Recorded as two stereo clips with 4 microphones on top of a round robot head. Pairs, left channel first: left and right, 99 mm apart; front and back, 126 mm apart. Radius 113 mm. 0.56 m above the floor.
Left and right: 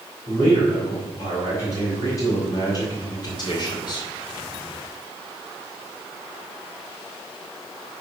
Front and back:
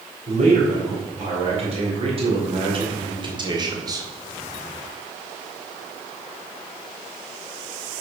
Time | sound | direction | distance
0.3 | a man speaking | 150° left | 3 m